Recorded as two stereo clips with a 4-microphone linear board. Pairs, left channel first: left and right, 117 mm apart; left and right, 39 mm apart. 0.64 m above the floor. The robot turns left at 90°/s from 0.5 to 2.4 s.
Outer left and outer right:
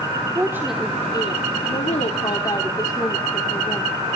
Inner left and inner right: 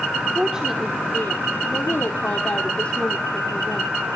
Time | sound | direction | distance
0.3 | a woman speaking | 155° right | 1.4 m